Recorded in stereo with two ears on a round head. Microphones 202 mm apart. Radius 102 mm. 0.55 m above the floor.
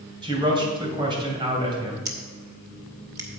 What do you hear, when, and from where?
0.2 s a man speaking: 20° right (ahead or behind), 2.5 m
2.0 s scissors: 15° right (ahead or behind), 1.2 m